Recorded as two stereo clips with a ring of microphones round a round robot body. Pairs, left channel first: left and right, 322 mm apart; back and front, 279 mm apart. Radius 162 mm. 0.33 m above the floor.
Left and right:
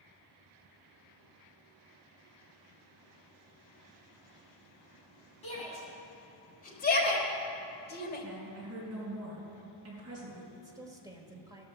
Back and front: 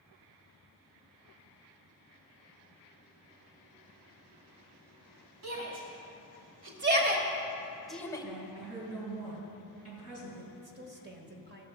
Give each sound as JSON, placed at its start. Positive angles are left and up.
{"t": 5.4, "sound": "a shout", "azimuth_deg": 20, "distance_m": 2.5}
{"t": 8.2, "sound": "a woman speaking", "azimuth_deg": -45, "distance_m": 4.0}
{"t": 10.5, "sound": "a woman speaking", "azimuth_deg": -20, "distance_m": 1.2}